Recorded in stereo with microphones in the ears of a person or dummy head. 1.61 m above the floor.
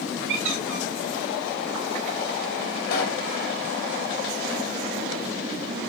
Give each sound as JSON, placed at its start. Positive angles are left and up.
{"t": 0.3, "sound": "a squeak", "side_deg": -70, "distance_m": 3.0}
{"t": 2.9, "sound": "a pop", "side_deg": 60, "distance_m": 4.5}